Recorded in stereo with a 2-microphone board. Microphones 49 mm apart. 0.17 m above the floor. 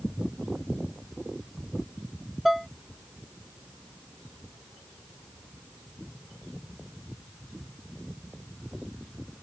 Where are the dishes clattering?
Centre (ahead or behind).